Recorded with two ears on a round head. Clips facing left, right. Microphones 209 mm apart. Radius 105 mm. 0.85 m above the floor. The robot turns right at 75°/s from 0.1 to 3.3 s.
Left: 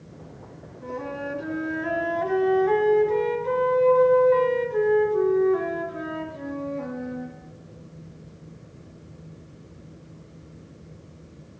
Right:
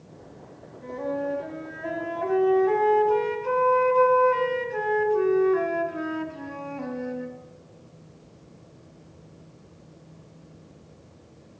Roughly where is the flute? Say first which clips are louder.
Right 3 dB; ahead left.